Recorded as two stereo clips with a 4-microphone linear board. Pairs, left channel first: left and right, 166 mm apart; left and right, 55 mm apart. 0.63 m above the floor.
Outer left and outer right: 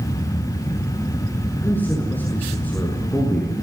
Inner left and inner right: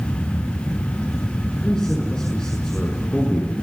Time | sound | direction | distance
1.6 | a man speaking | 10° left (ahead or behind) | 6.5 m